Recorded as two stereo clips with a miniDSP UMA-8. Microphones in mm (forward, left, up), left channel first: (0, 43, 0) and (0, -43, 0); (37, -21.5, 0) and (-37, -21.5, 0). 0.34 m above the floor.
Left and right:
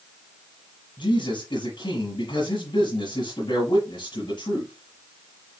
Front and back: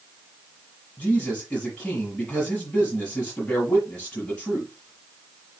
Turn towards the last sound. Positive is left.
turn(degrees=80)